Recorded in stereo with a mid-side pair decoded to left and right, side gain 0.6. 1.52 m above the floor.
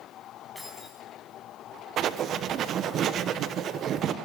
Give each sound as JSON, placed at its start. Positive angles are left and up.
{"t": 0.6, "sound": "keys jangling", "azimuth_deg": -5, "distance_m": 9.5}
{"t": 2.0, "sound": "writing", "azimuth_deg": -55, "distance_m": 1.2}